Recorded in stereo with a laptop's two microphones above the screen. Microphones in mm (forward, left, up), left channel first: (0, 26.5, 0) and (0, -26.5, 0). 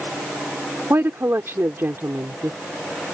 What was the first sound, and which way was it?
A woman speaking, 50° right (ahead or behind).